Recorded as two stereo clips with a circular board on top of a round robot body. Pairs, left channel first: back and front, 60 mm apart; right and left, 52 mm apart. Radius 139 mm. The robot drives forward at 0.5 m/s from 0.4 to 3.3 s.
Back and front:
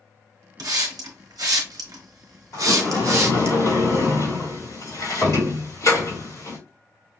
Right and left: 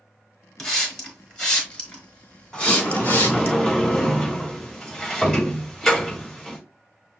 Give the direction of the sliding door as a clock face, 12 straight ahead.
6 o'clock.